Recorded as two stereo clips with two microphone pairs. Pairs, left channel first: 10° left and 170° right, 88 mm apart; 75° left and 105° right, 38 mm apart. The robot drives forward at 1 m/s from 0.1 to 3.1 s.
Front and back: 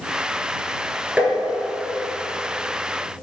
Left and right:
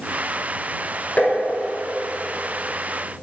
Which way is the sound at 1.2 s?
120° left.